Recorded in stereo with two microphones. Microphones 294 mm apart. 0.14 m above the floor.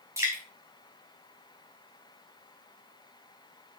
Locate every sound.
0.2 s dripping: 10° right (ahead or behind), 3 m